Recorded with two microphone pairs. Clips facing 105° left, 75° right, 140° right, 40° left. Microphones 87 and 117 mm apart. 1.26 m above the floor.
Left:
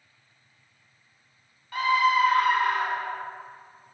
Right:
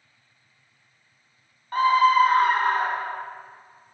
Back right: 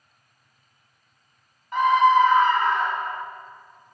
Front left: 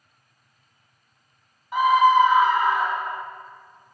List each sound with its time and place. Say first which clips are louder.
1.7 s a scream: right 5 dB, front left 1 dB; 40° right, 0.5 m